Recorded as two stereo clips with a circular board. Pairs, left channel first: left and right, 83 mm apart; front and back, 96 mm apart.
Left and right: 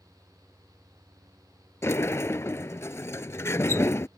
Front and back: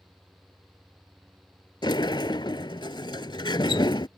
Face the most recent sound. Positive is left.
turn(degrees=35)